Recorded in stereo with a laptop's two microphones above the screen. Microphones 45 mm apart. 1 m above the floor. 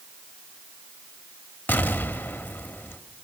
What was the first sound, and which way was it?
An explosion, 45° left (ahead or behind).